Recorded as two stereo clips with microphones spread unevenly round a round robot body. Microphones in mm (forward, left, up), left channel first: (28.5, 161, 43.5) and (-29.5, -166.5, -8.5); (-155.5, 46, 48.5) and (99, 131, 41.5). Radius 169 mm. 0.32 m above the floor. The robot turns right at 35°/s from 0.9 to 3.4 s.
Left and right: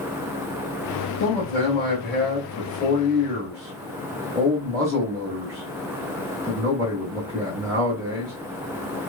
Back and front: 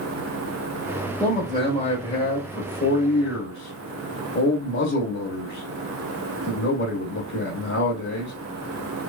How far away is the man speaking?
About 1.1 m.